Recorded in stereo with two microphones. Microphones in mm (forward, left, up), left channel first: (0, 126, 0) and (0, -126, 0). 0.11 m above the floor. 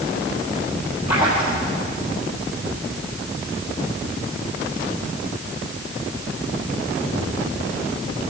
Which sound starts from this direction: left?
A splash, at 1.1 s.